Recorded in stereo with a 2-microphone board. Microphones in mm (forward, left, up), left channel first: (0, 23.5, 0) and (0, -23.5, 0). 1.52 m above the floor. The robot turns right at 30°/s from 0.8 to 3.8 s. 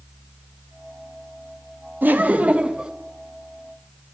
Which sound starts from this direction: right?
Laughter, at 2.0 s.